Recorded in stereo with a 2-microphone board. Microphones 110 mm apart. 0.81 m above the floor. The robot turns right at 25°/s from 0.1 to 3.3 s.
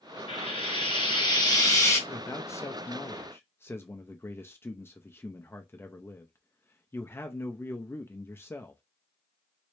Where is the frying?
110° left, 1.6 m; by 2.0 s 150° left, 1.6 m.